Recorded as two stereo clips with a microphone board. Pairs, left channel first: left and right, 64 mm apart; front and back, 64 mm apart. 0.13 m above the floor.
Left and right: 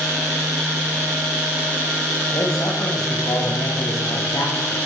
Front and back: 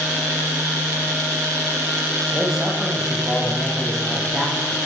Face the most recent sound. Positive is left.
turn(degrees=90)